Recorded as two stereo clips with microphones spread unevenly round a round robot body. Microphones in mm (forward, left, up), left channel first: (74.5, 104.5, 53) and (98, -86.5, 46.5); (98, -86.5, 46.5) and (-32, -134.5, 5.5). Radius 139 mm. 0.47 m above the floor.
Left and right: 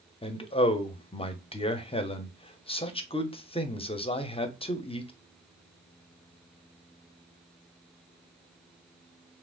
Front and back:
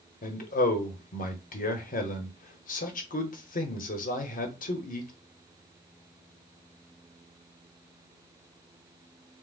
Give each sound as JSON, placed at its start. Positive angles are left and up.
{"t": 0.2, "sound": "a man speaking", "azimuth_deg": 40, "distance_m": 1.0}